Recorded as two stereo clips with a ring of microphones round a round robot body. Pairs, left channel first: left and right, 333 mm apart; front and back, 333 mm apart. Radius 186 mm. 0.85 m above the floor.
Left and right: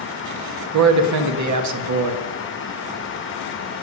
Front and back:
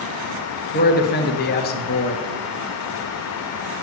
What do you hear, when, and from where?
0.7 s a man speaking: 60° right, 1.5 m